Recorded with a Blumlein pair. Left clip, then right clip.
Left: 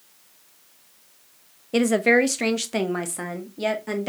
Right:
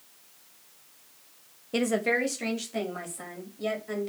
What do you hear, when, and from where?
1.7 s a woman speaking: 10° left, 0.8 m; by 4.1 s 45° left, 2 m